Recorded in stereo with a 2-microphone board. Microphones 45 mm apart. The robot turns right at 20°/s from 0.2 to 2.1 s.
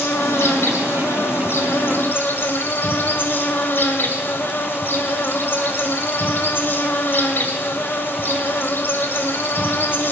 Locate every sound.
0.0 s an insect: 85° left, 1.8 m; by 10.1 s 125° left, 1.8 m